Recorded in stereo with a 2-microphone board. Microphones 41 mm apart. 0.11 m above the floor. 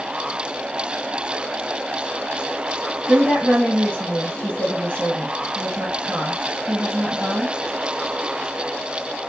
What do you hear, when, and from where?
3.1 s a woman speaking: 45° right (ahead or behind), 2.5 m